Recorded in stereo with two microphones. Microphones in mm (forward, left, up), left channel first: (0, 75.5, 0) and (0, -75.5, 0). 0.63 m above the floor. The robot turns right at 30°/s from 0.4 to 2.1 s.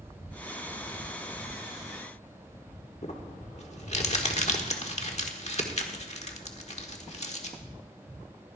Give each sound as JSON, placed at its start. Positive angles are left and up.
{"t": 3.0, "sound": "crumpling", "side_deg": 50, "distance_m": 1.4}